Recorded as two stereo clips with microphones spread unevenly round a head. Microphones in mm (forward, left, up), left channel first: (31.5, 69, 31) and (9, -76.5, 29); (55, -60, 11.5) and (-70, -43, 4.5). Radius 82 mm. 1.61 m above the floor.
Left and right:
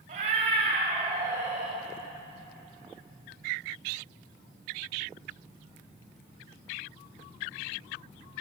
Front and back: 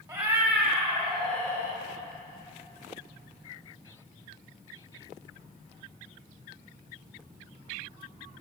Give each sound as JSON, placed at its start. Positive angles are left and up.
{"t": 0.1, "sound": "a cat meowing", "azimuth_deg": -120, "distance_m": 1.8}